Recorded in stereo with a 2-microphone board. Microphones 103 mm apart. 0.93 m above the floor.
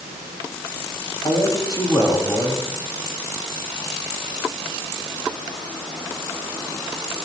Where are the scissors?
I don't hear scissors.